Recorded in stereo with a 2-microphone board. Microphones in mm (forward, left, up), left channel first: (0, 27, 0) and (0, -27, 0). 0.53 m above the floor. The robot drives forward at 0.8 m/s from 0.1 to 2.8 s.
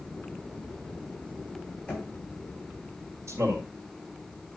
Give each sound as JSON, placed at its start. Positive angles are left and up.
{"t": 1.9, "sound": "knocking", "side_deg": 15, "distance_m": 3.5}
{"t": 3.3, "sound": "a man speaking", "side_deg": -65, "distance_m": 2.0}